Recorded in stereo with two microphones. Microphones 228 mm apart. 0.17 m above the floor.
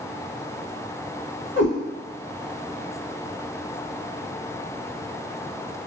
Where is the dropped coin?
No dropped coin in this recording.